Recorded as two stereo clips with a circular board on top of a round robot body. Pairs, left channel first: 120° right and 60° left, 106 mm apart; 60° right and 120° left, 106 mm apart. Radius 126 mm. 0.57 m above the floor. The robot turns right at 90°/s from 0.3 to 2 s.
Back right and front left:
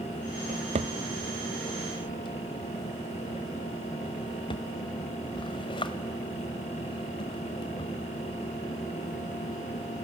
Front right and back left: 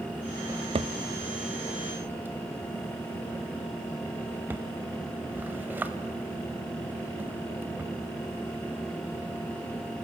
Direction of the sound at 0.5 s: 60° left.